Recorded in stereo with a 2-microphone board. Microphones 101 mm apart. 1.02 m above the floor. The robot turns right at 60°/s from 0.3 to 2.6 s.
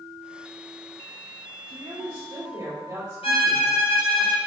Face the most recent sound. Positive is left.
turn(degrees=75)  # may be behind; listen again after turning